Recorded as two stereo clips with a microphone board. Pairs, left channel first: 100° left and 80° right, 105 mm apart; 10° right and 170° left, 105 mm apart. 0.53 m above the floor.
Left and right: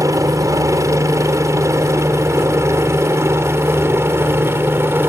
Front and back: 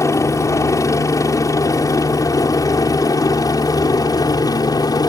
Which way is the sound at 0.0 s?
45° right.